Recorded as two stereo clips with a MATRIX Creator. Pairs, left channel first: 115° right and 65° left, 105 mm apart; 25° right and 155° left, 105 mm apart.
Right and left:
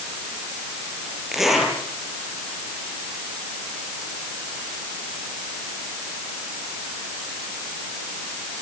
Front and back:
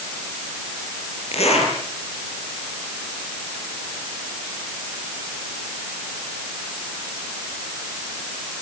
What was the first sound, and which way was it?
A zipper, 20° right.